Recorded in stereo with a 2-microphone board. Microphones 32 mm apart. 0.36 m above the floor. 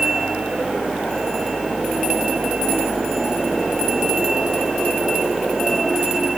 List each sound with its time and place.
Only background noise.